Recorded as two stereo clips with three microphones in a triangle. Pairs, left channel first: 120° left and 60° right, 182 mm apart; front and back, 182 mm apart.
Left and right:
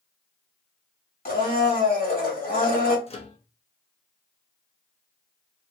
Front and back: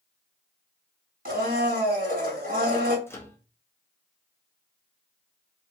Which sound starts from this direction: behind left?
A blender, at 1.2 s.